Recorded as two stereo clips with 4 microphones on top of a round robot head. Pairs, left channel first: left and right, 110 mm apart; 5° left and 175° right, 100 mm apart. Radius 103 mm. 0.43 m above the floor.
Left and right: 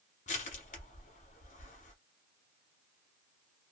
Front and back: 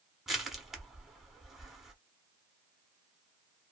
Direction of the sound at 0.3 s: 95° left.